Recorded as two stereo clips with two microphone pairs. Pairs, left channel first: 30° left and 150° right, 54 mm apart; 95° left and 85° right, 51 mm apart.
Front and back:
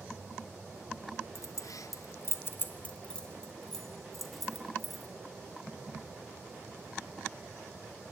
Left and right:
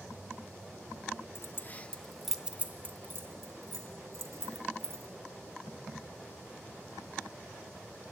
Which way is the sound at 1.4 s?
55° left.